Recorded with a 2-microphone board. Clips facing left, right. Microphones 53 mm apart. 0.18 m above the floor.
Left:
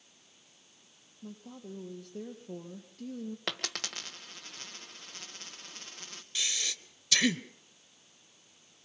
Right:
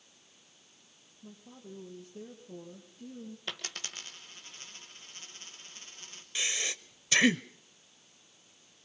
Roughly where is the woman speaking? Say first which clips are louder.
Left 4 dB; left.